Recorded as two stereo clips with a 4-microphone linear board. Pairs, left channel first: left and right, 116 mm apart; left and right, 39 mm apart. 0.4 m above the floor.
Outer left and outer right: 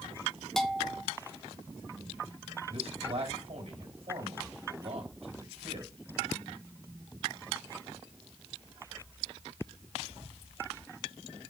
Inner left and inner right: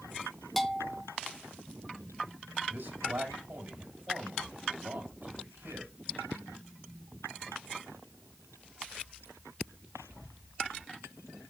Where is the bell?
5° left (ahead or behind), 0.7 m.